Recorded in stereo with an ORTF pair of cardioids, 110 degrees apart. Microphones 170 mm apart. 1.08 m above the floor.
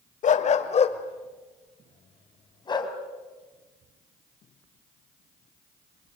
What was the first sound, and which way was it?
A dog barking, 50° left.